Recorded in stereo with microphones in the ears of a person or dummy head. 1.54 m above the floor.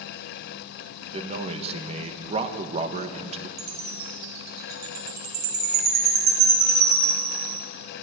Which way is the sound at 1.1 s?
35° right (ahead or behind).